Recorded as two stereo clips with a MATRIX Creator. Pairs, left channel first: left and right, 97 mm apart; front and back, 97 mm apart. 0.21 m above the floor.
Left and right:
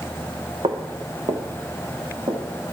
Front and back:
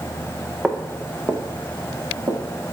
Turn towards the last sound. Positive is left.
turn(degrees=-130)